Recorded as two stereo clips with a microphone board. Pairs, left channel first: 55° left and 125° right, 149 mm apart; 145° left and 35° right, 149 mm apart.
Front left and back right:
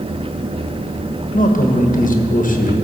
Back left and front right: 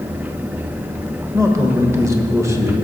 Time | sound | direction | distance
1.3 | a man speaking | 35° left | 1.2 m